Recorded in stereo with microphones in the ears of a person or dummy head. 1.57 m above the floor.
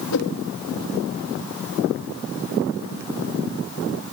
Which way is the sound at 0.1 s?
85° left.